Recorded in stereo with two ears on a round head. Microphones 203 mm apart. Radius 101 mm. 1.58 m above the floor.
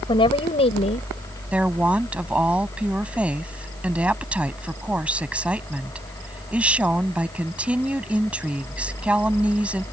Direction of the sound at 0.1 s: 20° left (ahead or behind).